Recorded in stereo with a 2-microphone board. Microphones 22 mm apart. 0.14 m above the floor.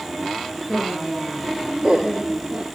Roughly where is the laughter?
Right.